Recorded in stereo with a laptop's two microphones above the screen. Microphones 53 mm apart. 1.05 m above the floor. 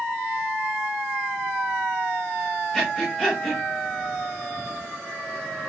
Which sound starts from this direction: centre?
Breathing, at 2.7 s.